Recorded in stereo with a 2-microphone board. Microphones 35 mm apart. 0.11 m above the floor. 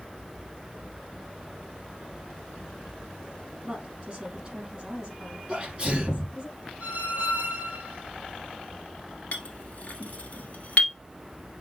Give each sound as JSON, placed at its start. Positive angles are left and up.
{"t": 3.6, "sound": "a woman speaking", "side_deg": -30, "distance_m": 4.0}
{"t": 5.5, "sound": "a sneeze", "side_deg": -35, "distance_m": 3.0}
{"t": 6.8, "sound": "a squeak", "side_deg": -65, "distance_m": 2.0}
{"t": 9.3, "sound": "a clink", "side_deg": 45, "distance_m": 1.5}